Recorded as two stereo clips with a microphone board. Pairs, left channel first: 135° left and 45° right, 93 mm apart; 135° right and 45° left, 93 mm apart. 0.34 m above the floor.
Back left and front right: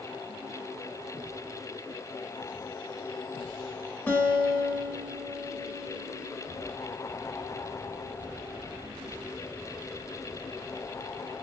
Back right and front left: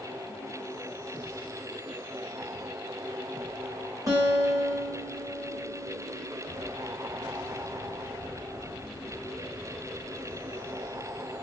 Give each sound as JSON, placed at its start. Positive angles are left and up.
{"t": 4.1, "sound": "a guitar", "azimuth_deg": 75, "distance_m": 1.2}